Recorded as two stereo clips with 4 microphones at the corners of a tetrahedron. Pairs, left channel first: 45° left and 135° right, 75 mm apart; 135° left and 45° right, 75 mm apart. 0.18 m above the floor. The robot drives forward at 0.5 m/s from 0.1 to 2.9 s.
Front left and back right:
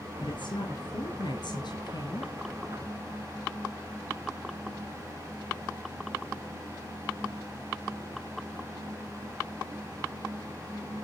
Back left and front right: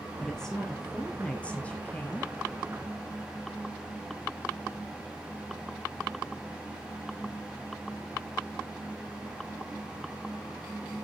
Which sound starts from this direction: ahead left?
A woman speaking, at 0.2 s.